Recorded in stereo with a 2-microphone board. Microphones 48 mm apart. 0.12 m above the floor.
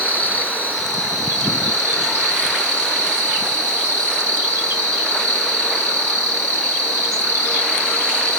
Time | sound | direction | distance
0.0 | an insect | 60° right (ahead or behind) | 2 m